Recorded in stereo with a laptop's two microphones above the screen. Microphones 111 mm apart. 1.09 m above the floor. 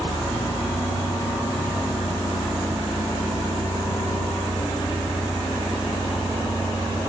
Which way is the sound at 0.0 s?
15° left (ahead or behind).